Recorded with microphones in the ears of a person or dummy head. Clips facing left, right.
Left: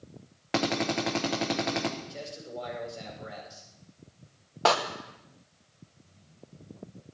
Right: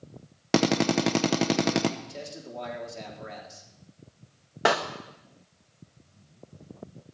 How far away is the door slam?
About 0.9 m.